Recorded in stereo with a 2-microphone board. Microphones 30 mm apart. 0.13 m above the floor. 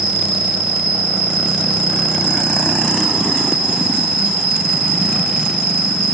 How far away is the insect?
About 1.6 m.